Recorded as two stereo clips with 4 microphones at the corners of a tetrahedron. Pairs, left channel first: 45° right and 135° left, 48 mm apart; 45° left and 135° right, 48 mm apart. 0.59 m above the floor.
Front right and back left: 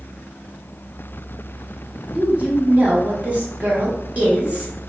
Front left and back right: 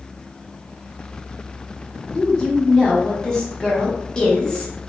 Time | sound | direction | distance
2.1 | a woman speaking | 105° left | 0.9 m